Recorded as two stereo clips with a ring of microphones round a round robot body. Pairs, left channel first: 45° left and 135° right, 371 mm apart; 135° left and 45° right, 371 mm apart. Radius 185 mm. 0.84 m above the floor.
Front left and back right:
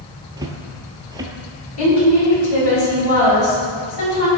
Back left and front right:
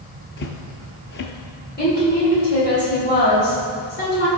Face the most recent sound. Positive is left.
turn(degrees=70)